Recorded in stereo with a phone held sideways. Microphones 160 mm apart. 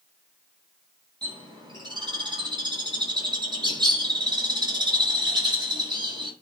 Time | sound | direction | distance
1.2 | a bird | 30° right (ahead or behind) | 5 m